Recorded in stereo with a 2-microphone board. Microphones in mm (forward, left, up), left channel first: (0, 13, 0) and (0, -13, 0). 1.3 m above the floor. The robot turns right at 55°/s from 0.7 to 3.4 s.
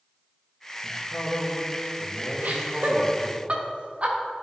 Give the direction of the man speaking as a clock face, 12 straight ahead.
10 o'clock.